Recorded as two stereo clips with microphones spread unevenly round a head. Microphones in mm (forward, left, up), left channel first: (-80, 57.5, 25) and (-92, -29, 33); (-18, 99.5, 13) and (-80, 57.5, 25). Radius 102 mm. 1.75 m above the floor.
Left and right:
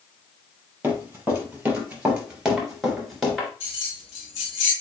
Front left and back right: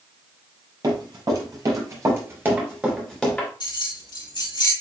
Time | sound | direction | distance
0.8 | running footsteps | 165° right | 3.5 m
3.6 | keys jangling | 45° left | 3 m